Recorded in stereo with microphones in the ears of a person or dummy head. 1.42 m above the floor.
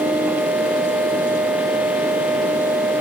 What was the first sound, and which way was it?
Only background noise.